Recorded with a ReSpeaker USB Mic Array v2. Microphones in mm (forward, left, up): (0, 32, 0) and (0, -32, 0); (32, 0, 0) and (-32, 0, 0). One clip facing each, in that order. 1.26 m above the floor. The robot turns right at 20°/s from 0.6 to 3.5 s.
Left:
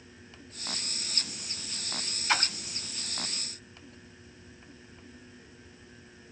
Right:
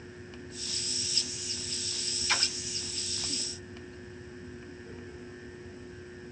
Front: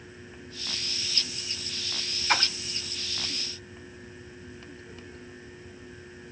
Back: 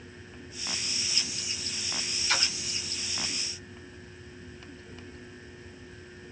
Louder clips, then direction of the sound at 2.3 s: Left 4 dB, front 5 dB; 35° left.